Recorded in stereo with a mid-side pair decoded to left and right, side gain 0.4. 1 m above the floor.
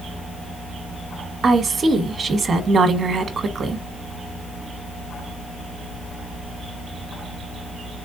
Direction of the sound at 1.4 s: 50° right.